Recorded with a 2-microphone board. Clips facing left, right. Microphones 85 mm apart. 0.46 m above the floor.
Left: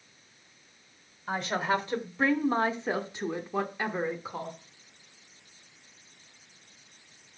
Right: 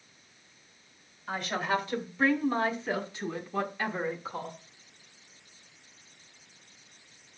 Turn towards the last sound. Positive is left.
turn(degrees=10)  # may be behind; listen again after turning